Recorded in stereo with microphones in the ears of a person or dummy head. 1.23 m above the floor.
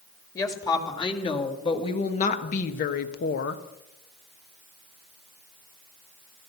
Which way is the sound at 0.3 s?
20° left (ahead or behind).